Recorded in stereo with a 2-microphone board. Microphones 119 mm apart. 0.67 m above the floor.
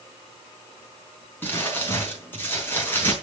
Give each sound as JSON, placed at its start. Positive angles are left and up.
{"t": 1.4, "sound": "crumpling", "side_deg": 20, "distance_m": 5.0}